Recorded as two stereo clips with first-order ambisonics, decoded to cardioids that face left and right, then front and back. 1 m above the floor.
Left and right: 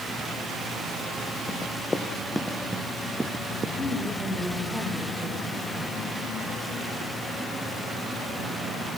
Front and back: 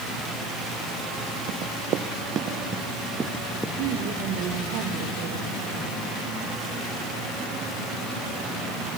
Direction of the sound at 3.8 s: Straight behind.